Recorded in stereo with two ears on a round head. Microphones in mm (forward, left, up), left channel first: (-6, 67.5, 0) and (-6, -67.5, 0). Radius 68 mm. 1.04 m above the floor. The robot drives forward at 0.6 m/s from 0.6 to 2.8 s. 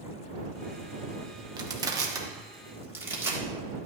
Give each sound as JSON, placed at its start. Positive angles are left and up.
{"t": 1.6, "sound": "crushing", "side_deg": -30, "distance_m": 1.1}